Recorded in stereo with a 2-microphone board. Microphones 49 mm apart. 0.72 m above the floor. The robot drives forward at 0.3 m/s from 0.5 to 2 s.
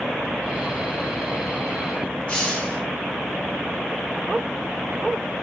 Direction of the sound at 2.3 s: 20° left (ahead or behind).